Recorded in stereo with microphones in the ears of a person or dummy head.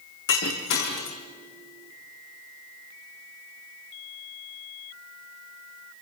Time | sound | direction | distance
0.3 | breaking glass | 65° left (ahead or behind) | 4 m